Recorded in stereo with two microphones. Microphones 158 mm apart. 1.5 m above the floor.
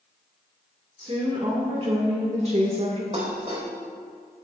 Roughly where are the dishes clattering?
Right.